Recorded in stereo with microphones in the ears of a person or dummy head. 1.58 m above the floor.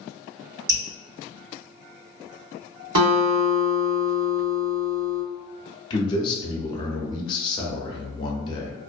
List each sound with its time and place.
0.7 s dripping: 45° right (ahead or behind), 1.8 m
3.0 s a guitar: 85° right, 1.3 m
5.9 s a man speaking: 30° left (ahead or behind), 0.6 m